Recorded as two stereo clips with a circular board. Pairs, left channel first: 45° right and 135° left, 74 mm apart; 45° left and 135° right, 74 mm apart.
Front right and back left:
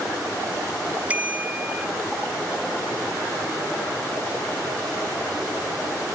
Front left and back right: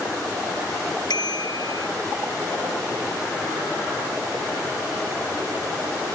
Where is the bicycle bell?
65° left.